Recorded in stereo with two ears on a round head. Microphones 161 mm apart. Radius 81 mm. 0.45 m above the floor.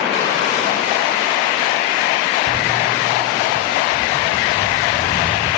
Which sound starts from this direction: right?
Footsteps, at 2.5 s.